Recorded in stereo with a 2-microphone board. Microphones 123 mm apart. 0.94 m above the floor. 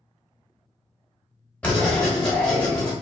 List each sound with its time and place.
1.6 s writing: 10° left (ahead or behind), 0.9 m